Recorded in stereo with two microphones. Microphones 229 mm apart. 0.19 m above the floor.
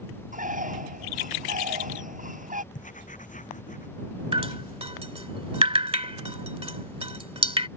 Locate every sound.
0.3 s a bird: 35° right (ahead or behind)
2.7 s writing: 35° left (ahead or behind)
4.3 s dripping: 25° right (ahead or behind)